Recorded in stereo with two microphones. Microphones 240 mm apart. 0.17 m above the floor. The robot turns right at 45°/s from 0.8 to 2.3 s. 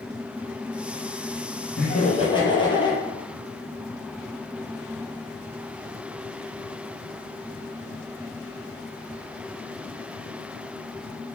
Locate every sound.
1.8 s laughter: 40° left (ahead or behind), 5 m; by 3.0 s 20° left (ahead or behind), 5 m